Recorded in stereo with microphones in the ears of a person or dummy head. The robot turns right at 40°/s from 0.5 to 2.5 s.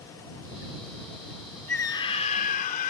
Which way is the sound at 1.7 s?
10° left.